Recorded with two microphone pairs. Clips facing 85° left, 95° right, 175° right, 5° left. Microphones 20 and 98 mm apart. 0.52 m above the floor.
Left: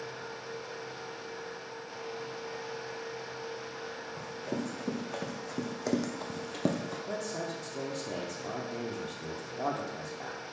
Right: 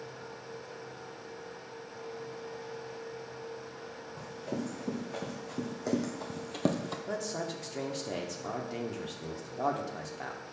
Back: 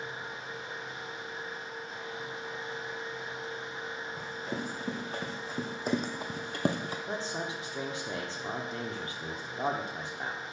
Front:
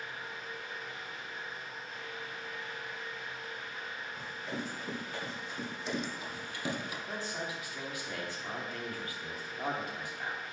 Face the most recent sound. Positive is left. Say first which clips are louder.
# right 1 dB, back 3 dB
turn(degrees=-140)